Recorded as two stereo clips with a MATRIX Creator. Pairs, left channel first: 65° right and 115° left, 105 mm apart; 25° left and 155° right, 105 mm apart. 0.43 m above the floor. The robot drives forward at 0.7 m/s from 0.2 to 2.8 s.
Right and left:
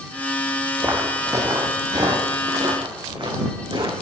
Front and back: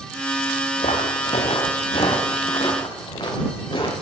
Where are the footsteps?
40° left, 2.5 m; by 3.9 s 70° left, 4.5 m.